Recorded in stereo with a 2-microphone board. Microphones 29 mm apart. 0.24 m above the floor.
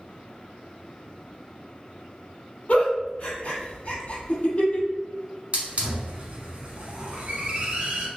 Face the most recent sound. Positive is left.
turn(degrees=-40)  # may be behind; listen again after turning